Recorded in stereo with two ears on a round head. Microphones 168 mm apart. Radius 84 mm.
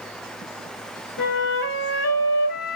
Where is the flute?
75° left (ahead or behind), 1.2 m.